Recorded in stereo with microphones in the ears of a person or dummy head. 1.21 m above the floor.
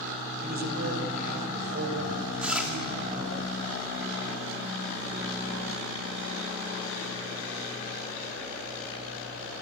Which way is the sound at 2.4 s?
5° right (ahead or behind).